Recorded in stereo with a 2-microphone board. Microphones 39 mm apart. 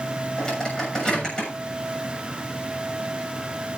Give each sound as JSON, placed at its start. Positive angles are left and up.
{"t": 0.4, "sound": "a microwave", "side_deg": 20, "distance_m": 7.0}